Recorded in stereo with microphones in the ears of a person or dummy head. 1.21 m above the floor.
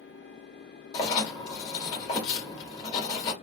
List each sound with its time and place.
0.9 s writing: 40° left (ahead or behind), 1.3 m